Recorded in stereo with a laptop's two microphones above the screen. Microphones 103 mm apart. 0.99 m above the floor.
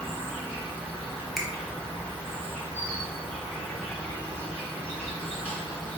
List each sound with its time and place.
0.0 s an insect: 15° left (ahead or behind), 2.0 m
1.4 s a finger snap: centre (ahead or behind), 0.6 m